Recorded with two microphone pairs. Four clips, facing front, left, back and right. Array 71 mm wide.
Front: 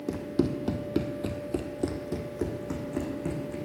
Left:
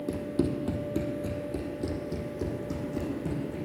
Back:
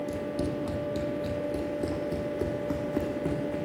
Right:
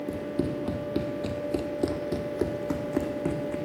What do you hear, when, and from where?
0.1 s running footsteps: 15° left, 1.1 m; by 3.6 s 110° right, 1.7 m